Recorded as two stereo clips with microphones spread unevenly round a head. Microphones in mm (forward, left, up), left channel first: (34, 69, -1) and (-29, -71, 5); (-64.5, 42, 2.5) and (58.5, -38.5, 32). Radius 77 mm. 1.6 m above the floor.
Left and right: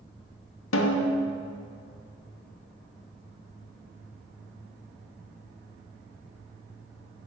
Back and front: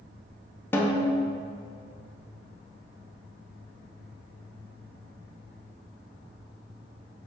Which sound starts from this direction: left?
A snare drum, at 0.7 s.